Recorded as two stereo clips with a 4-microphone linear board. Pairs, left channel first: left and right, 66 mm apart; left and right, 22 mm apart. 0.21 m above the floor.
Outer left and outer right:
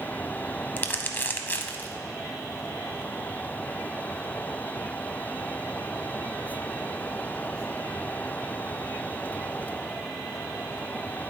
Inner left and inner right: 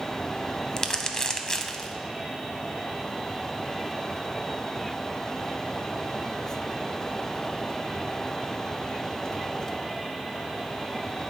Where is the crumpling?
30° left (ahead or behind), 0.7 m.